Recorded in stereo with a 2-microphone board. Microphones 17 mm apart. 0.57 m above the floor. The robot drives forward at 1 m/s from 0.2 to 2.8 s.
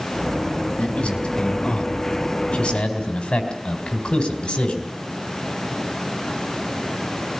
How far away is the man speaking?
About 4 m.